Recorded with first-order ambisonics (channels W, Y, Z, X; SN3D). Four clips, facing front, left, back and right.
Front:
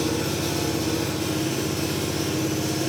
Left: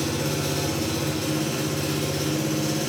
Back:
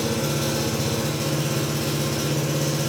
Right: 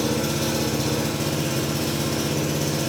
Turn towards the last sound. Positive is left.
turn(degrees=-130)